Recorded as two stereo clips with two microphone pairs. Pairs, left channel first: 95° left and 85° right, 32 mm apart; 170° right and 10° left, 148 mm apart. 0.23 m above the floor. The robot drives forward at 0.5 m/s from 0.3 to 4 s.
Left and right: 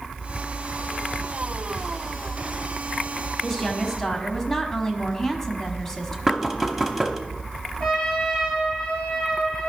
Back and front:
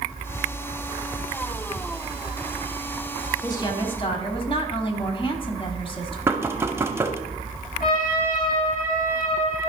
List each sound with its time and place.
3.4 s a woman speaking: 160° left, 1.1 m; by 6.2 s 170° left, 1.2 m
6.3 s knocking: 20° right, 0.7 m
7.8 s a trumpet: straight behind, 4 m